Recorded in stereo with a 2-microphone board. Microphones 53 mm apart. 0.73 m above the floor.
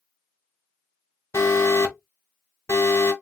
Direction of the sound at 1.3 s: 75° left (ahead or behind).